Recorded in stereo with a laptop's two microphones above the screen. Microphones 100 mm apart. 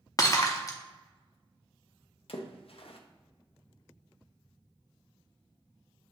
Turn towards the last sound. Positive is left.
turn(degrees=65)  # may be behind; listen again after turning